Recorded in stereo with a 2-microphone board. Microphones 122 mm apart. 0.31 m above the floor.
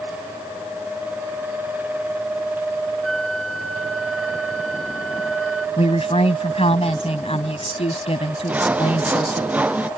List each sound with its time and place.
3.0 s a flute: centre (ahead or behind)
5.8 s a woman speaking: 55° left (ahead or behind)
8.5 s sawing: 10° right (ahead or behind)